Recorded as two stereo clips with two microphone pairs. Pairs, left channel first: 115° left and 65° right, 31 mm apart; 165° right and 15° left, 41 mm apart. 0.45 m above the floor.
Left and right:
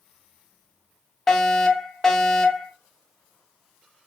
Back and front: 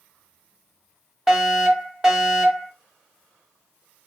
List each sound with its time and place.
1.3 s a fire alarm: 65° left, 1.7 m